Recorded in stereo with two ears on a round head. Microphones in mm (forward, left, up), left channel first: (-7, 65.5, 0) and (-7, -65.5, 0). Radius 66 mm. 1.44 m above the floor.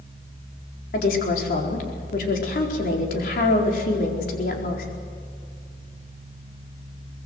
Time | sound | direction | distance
0.9 | a woman speaking | 60° left (ahead or behind) | 4.5 m